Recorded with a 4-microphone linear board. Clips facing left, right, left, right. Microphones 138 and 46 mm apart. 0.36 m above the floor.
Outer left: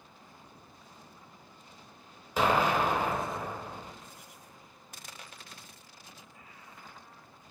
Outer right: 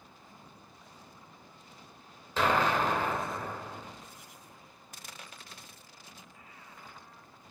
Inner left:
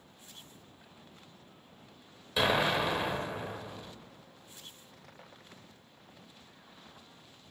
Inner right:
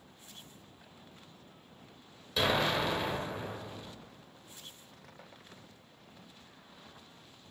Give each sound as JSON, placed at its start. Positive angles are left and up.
{"t": 2.4, "sound": "an explosion", "side_deg": 10, "distance_m": 0.8}